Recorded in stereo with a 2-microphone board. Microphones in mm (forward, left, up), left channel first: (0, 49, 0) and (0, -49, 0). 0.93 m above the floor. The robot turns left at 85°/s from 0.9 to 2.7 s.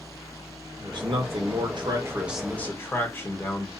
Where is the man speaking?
50° right, 0.9 m; by 3.7 s 155° left, 0.9 m.